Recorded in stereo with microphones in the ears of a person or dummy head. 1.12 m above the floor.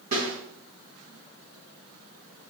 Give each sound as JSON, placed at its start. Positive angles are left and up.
{"t": 0.1, "sound": "a snare drum", "side_deg": -50, "distance_m": 4.0}